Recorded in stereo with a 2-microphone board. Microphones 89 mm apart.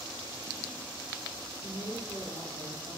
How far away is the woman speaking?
About 4.5 m.